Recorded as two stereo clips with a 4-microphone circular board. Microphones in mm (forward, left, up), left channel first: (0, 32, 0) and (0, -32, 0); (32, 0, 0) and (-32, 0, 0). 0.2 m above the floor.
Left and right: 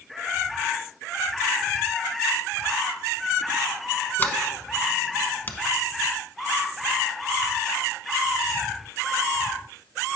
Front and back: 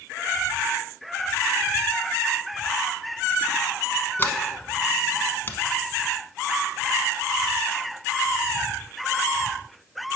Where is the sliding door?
40° left, 0.8 m.